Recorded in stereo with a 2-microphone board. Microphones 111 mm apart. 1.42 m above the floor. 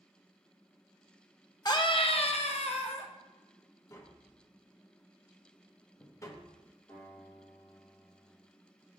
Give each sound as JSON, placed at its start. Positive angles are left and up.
{"t": 1.6, "sound": "a scream", "side_deg": 35, "distance_m": 0.7}
{"t": 3.9, "sound": "tapping", "side_deg": 25, "distance_m": 0.6}
{"t": 6.9, "sound": "a guitar", "side_deg": 25, "distance_m": 2.5}